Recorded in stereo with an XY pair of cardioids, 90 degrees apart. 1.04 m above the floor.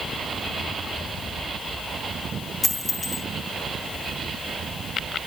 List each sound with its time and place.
2.6 s a dropped coin: 25° left, 4 m